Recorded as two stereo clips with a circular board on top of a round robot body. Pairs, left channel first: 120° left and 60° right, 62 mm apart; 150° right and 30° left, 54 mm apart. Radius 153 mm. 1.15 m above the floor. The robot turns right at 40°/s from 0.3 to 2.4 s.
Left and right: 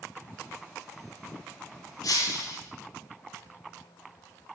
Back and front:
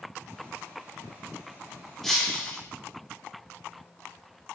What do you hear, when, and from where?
2.0 s breaking glass: 125° left, 10 m; by 2.6 s 140° left, 10 m